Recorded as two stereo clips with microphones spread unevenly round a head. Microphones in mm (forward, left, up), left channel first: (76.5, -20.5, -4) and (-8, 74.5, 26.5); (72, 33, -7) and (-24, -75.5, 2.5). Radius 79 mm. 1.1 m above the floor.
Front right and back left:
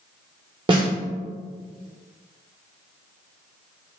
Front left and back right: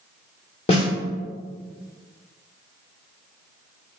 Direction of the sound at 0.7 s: 105° left.